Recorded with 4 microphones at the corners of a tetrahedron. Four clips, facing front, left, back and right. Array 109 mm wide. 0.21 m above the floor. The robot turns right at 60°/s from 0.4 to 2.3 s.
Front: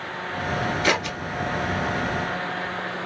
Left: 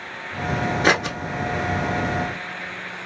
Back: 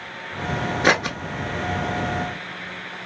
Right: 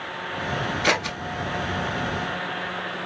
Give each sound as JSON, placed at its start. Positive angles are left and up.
{"t": 0.8, "sound": "scissors", "azimuth_deg": 135, "distance_m": 0.6}